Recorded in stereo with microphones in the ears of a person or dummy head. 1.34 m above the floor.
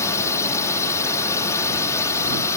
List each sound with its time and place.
0.0 s a drone: 15° left (ahead or behind)